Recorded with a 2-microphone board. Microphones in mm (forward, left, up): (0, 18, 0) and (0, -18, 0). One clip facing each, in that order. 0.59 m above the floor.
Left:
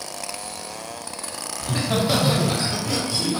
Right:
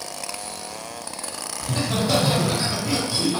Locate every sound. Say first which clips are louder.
1.6 s laughter: left 1 dB; 25° left (ahead or behind), 0.9 m; by 3.4 s 30° right (ahead or behind), 1.0 m